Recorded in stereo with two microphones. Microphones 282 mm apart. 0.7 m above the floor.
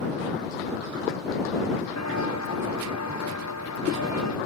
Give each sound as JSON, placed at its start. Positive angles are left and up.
{"t": 2.0, "sound": "footsteps", "side_deg": 75}